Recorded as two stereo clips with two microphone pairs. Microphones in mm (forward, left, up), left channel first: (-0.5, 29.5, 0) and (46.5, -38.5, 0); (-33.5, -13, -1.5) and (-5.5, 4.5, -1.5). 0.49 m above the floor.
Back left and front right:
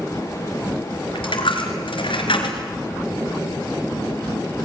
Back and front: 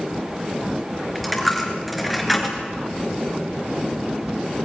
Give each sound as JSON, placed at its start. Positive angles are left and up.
{"t": 1.1, "sound": "a dropped coin", "azimuth_deg": 125, "distance_m": 3.0}